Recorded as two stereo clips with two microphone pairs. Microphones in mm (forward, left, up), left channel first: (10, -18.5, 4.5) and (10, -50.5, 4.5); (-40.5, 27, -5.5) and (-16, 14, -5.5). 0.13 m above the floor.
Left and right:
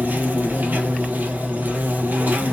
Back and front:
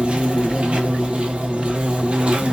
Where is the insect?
75° right, 1.3 m.